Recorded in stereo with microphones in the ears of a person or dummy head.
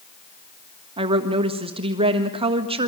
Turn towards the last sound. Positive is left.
turn(degrees=-35)  # may be behind; listen again after turning